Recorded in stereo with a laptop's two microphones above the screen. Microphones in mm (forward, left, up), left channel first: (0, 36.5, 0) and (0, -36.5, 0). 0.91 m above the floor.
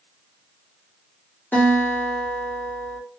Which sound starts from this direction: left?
A guitar, at 1.5 s.